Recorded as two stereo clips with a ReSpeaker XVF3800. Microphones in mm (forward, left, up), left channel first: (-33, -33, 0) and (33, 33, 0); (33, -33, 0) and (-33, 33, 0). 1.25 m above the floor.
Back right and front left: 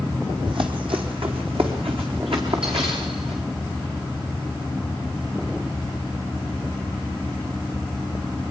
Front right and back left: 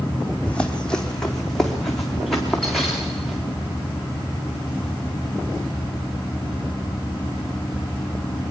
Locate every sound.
0.5 s running footsteps: 35° left, 2.5 m; by 3.4 s 45° left, 6.5 m